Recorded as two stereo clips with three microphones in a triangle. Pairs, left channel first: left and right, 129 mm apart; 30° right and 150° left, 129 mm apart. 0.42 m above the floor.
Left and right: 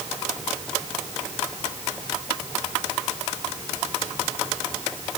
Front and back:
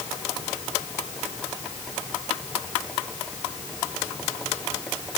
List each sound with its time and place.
Only background noise.